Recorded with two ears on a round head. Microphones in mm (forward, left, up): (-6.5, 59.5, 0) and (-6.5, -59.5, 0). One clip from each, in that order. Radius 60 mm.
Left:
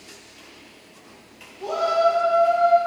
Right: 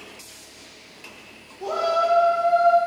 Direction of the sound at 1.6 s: 60° right (ahead or behind).